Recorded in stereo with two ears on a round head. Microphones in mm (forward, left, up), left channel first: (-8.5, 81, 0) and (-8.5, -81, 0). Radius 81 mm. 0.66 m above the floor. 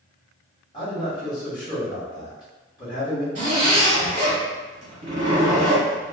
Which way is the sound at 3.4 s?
45° right (ahead or behind).